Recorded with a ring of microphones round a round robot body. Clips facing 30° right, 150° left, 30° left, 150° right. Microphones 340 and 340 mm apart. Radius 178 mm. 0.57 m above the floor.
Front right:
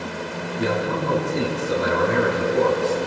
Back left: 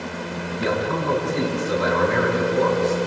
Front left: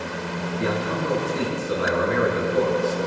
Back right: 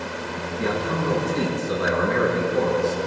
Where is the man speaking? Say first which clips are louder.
Even, back right 1 dB; 90° right, 9 m.